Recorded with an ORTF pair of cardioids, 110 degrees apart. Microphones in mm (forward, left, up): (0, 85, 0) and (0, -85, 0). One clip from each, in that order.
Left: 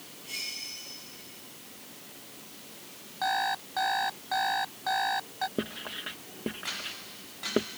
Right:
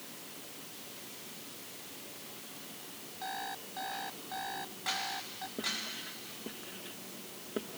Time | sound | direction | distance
3.2 | an alarm clock | 65° left | ?
5.6 | writing | 60° left | ?